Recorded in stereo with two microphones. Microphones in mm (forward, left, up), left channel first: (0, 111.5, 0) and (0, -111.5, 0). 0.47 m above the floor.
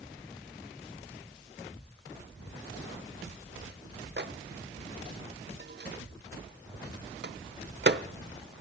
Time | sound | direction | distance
4.2 | a microwave | 50° right (ahead or behind) | 0.9 m